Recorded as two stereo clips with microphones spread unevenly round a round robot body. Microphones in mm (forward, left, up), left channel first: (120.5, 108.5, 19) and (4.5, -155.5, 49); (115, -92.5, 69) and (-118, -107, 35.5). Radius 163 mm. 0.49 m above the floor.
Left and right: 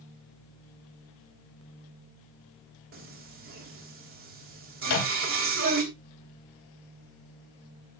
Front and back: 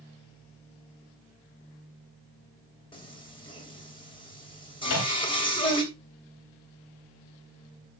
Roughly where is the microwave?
Ahead left.